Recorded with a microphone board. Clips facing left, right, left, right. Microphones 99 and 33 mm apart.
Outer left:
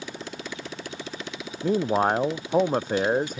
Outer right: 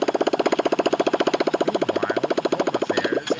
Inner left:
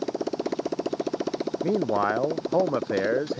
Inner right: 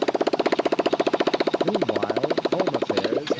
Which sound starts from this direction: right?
A motorcycle, at 0.0 s.